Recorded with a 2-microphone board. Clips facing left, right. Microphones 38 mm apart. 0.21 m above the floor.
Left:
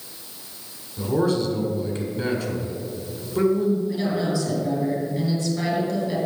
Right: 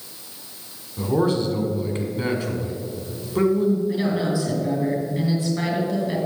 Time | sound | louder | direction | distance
1.0 | a man speaking | right 1 dB | 25° right (ahead or behind) | 1.6 m
3.9 | a woman speaking | right 1 dB | 35° right (ahead or behind) | 3.5 m